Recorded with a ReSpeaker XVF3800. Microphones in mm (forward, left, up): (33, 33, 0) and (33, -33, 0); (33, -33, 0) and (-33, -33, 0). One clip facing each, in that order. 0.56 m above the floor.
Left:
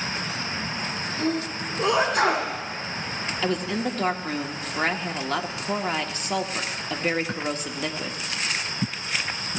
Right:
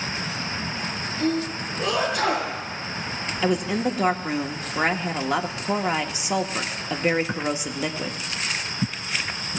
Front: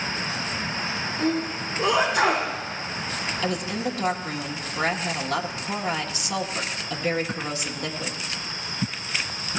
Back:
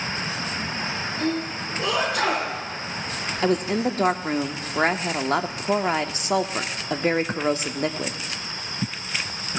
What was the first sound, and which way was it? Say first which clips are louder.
A sneeze: right 2 dB, front 2 dB; 65° left.